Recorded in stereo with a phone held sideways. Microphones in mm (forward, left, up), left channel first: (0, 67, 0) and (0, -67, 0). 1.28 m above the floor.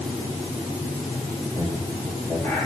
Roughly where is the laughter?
Left.